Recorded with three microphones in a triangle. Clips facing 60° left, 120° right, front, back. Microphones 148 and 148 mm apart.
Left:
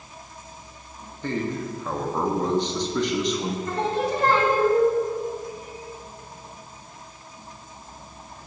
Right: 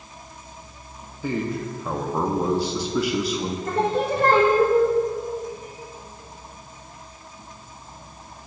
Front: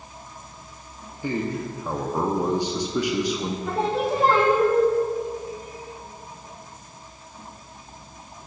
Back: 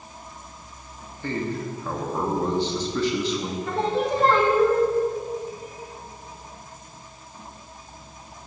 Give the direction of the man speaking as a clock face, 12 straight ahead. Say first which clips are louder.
Right 1 dB, front 1 dB; 2 o'clock.